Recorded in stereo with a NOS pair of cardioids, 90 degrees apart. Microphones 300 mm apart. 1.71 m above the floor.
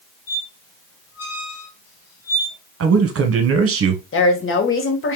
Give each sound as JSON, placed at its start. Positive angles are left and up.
{"t": 0.3, "sound": "a squeak", "azimuth_deg": 55, "distance_m": 2.0}
{"t": 2.8, "sound": "a man speaking", "azimuth_deg": -45, "distance_m": 1.5}
{"t": 4.1, "sound": "a woman speaking", "azimuth_deg": 45, "distance_m": 1.7}